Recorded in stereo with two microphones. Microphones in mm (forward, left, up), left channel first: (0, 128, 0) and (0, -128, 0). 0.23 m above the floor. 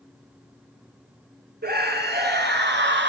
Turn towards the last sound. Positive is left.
turn(degrees=-45)  # may be behind; listen again after turning